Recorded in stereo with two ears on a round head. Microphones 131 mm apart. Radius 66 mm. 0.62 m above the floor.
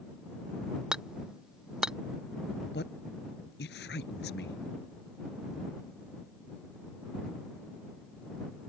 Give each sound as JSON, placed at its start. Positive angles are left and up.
{"t": 0.9, "sound": "hammering", "side_deg": -5}
{"t": 2.7, "sound": "a man speaking", "side_deg": 85}